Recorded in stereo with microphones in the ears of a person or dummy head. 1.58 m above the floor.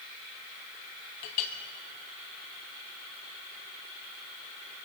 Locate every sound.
1.2 s a clink: 35° left (ahead or behind), 1.0 m